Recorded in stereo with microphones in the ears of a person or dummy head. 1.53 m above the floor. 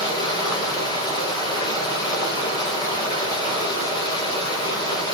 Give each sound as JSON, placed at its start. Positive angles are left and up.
{"t": 0.0, "sound": "running water", "side_deg": 25, "distance_m": 4.0}